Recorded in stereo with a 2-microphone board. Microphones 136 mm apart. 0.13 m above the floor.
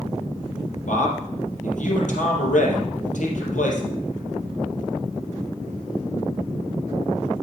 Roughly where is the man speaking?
Left.